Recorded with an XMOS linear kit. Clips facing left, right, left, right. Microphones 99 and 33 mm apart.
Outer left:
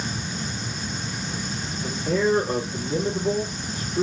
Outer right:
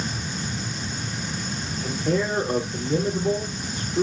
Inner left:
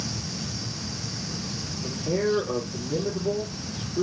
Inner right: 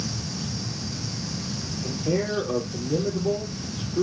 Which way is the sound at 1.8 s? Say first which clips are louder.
Outer left 2 dB, even; 35° right (ahead or behind).